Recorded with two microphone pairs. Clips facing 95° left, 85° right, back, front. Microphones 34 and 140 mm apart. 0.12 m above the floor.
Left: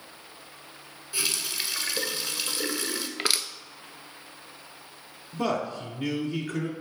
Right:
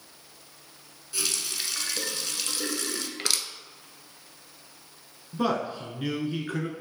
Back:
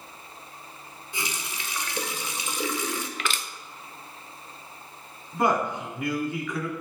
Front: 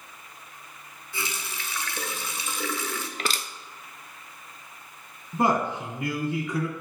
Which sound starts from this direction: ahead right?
A man speaking, at 5.3 s.